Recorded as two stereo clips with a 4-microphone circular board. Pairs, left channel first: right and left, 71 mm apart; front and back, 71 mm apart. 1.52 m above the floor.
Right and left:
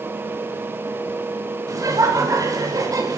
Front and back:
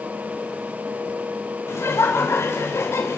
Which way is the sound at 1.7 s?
55° left.